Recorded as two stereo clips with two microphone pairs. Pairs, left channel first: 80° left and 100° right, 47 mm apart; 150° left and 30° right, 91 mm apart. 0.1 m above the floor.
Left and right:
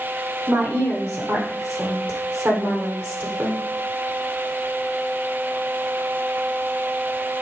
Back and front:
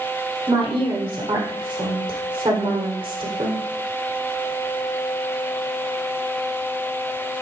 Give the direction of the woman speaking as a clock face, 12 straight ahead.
2 o'clock.